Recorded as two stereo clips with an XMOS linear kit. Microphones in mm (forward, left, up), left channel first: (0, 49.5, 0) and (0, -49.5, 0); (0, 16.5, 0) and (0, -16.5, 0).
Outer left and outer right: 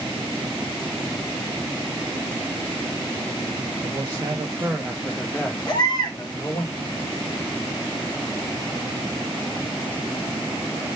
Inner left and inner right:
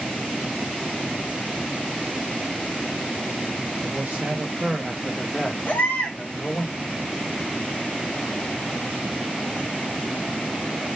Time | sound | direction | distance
3.8 | a man speaking | 45° right (ahead or behind) | 0.6 m
5.7 | a baby crying | 45° left (ahead or behind) | 0.8 m